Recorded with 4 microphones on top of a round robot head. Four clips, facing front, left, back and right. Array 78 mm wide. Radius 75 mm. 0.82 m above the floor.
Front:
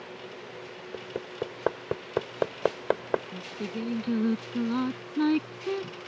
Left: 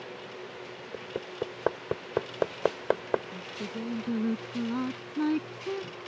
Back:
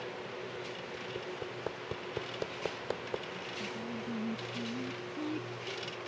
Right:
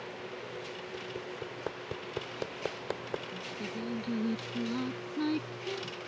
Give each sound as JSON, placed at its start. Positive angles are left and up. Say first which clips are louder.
{"t": 0.9, "sound": "hammering", "louder": "left 7 dB, front 8 dB", "azimuth_deg": 40}
{"t": 3.3, "sound": "singing", "louder": "left 2 dB, front 5 dB", "azimuth_deg": 20}